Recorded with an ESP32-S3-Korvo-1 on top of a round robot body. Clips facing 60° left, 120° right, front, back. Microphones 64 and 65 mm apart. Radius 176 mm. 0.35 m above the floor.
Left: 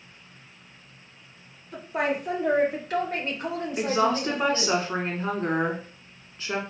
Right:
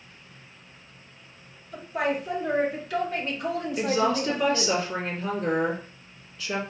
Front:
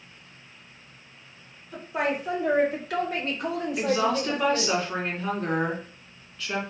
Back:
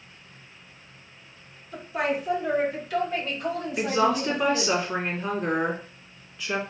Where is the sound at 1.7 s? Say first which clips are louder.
Even, even; 65° left, 1.9 m; by 4.8 s 15° right, 2.5 m.